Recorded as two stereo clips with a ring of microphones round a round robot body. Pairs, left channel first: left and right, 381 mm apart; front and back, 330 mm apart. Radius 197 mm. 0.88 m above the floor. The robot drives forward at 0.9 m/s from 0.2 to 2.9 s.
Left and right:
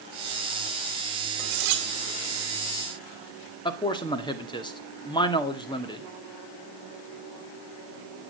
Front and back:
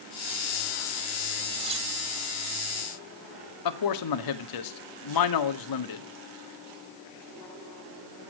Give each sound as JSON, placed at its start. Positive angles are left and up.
{"t": 1.4, "sound": "cutlery clinking", "azimuth_deg": -95, "distance_m": 2.5}
{"t": 3.6, "sound": "a man speaking", "azimuth_deg": 10, "distance_m": 2.0}